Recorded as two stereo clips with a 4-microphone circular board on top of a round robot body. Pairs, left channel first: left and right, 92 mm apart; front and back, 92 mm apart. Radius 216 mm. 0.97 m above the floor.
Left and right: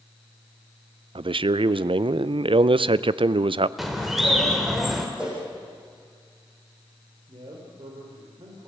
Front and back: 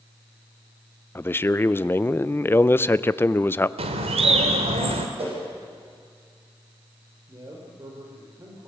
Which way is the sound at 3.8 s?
Straight behind.